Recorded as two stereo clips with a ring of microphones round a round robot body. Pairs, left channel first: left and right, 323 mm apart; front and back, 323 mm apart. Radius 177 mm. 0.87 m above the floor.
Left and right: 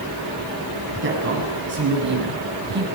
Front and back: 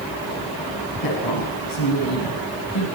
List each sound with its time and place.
1.0 s a woman speaking: 35° right, 6.5 m; by 2.9 s 30° right, 4.5 m